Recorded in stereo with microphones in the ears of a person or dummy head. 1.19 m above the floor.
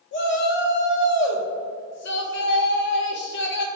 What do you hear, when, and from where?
0.1 s a shout: 60° left (ahead or behind), 1.5 m